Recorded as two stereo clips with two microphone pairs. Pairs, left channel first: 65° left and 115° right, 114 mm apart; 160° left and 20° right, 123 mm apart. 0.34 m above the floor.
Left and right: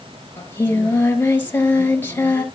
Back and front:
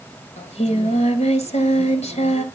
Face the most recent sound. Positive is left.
turn(degrees=140)